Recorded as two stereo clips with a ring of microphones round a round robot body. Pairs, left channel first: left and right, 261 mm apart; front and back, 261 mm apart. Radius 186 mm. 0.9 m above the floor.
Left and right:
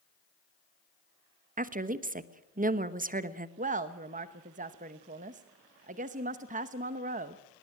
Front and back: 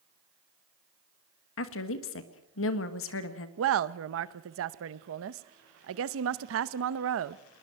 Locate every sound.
1.6 s a woman speaking: 35° right, 1.4 m
3.6 s a woman speaking: 150° right, 0.7 m